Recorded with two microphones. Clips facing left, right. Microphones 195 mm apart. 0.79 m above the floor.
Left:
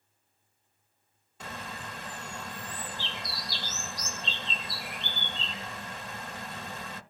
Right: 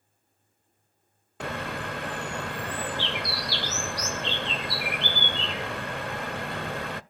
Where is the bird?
70° right (ahead or behind), 0.6 m.